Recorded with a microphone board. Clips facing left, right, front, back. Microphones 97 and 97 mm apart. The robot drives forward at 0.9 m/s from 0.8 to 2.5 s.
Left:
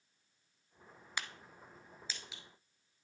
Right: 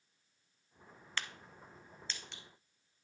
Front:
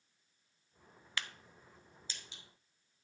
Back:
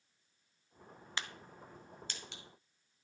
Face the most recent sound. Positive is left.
turn(degrees=175)